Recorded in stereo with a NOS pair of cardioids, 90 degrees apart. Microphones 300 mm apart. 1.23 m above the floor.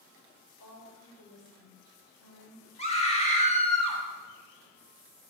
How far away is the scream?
About 4 m.